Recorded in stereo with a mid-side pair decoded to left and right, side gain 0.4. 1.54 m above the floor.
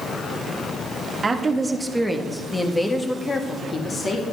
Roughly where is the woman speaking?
Ahead right.